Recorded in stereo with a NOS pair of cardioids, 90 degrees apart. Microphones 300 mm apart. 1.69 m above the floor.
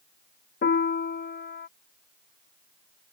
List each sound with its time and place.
0.6 s a piano: 40° left